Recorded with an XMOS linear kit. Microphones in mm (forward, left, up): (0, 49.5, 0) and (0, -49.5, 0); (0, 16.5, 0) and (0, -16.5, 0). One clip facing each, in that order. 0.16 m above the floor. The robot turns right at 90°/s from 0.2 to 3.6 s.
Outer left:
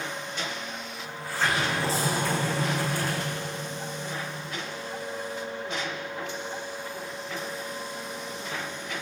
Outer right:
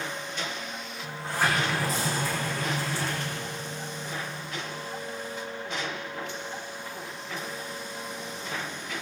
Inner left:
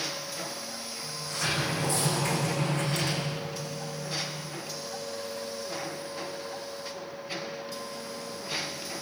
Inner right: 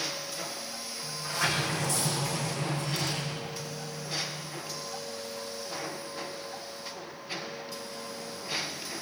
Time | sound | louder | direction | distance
1.0 | a sliding door | outer right 1 dB, inner right 2 dB | 45° right | 6 m